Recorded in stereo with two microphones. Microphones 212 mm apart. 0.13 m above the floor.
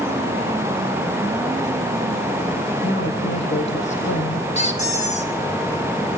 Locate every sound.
2.8 s a woman speaking: 60° left (ahead or behind), 4.5 m
4.5 s a squeak: 30° left (ahead or behind), 3 m